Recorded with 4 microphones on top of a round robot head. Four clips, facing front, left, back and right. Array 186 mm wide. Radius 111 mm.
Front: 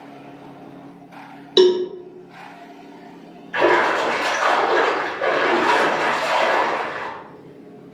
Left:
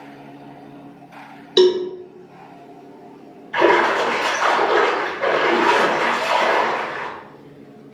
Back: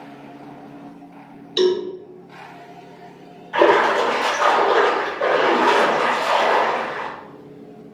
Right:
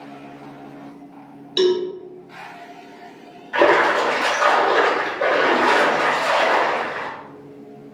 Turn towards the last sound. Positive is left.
turn(degrees=-135)